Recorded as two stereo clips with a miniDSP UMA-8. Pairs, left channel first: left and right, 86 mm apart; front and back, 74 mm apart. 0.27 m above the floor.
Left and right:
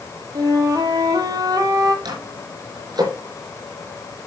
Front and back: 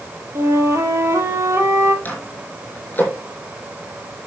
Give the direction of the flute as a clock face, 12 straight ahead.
4 o'clock.